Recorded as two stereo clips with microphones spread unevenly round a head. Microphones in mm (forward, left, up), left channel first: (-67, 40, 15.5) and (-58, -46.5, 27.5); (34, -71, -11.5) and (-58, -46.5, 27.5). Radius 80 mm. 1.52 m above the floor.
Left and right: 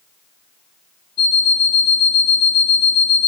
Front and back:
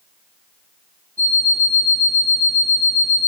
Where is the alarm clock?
120° left, 1.9 m.